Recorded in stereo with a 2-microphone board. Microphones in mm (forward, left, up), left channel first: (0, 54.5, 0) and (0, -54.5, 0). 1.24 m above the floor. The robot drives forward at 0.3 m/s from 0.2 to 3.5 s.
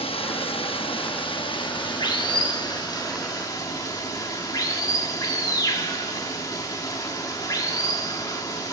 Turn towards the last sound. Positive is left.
turn(degrees=35)  # may be behind; listen again after turning